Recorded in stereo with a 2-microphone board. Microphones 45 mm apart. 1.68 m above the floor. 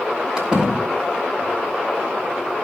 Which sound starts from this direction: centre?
A door slam, at 0.4 s.